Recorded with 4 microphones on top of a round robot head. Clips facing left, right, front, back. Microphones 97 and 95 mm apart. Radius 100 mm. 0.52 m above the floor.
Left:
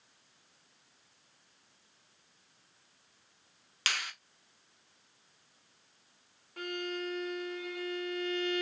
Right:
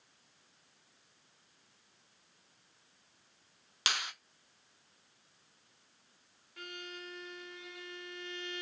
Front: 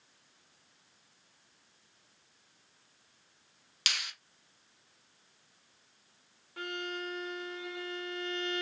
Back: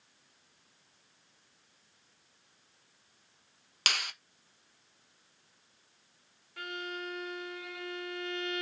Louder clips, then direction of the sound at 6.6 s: Left 10 dB, front 1 dB; 60° left.